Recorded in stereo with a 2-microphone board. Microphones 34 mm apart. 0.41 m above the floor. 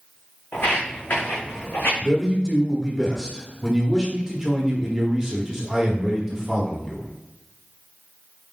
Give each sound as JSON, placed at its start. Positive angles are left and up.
{"t": 0.5, "sound": "footsteps", "side_deg": 65, "distance_m": 1.9}
{"t": 2.0, "sound": "a man speaking", "side_deg": -15, "distance_m": 1.1}